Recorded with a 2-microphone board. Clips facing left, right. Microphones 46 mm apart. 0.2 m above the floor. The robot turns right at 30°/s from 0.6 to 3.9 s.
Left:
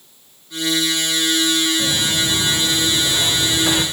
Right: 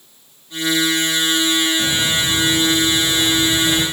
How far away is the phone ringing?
No phone ringing in this recording.